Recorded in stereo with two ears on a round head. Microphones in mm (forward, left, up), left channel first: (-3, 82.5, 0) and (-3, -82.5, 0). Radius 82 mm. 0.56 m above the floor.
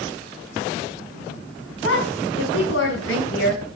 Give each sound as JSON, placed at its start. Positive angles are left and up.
{"t": 1.8, "sound": "a woman speaking", "side_deg": 75, "distance_m": 5.5}